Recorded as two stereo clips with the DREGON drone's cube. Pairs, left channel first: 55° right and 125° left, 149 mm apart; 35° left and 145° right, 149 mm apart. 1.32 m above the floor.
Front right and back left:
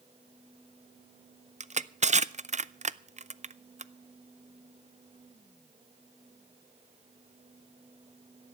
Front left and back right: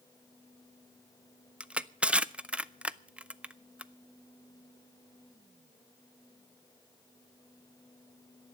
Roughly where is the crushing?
Behind left.